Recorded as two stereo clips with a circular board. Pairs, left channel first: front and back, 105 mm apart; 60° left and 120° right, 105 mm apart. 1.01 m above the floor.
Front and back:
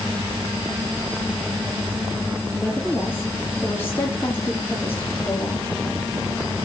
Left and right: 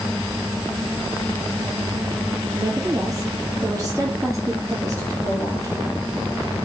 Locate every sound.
2.5 s a woman speaking: 65° right, 1.7 m